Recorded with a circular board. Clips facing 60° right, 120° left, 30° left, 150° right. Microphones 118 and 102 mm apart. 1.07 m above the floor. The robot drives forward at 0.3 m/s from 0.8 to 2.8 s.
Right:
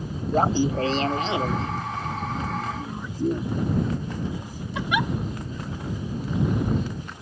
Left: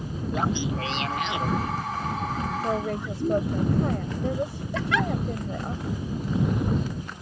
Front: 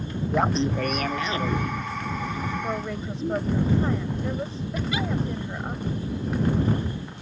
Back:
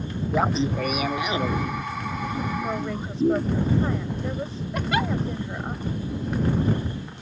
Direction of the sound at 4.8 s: 135° right.